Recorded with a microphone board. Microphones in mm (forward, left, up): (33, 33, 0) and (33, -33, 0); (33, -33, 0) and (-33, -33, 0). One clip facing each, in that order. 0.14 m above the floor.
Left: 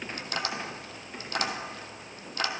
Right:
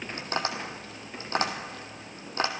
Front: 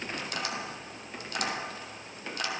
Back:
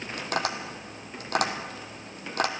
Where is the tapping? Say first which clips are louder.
Right 3 dB, back 9 dB; 145° right, 0.8 m.